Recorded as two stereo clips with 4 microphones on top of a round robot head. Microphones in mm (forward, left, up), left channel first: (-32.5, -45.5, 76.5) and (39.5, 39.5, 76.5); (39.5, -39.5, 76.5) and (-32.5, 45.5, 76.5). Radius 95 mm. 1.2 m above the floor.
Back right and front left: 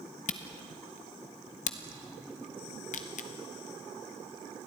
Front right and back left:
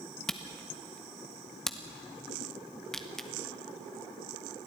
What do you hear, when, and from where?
0.3 s a camera shutter: 135° right, 1.0 m